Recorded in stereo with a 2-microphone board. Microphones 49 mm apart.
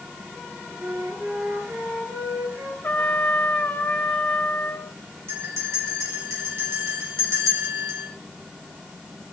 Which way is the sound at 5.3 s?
65° right (ahead or behind).